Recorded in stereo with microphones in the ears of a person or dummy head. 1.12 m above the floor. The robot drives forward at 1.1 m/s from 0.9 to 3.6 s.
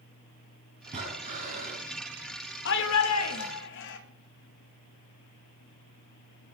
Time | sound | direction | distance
0.9 | breathing | 35° right (ahead or behind) | 3.5 m
2.6 | a shout | 65° left (ahead or behind) | 1.2 m